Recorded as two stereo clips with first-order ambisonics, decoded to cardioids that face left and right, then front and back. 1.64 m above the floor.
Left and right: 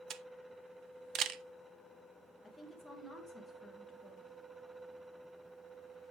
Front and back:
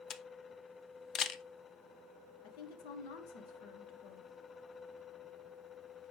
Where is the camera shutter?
50° right, 0.6 m.